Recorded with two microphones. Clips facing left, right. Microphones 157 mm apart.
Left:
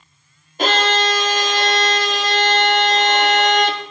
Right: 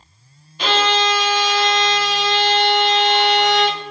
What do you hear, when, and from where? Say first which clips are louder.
0.6 s a violin: even; 45° left (ahead or behind), 0.6 m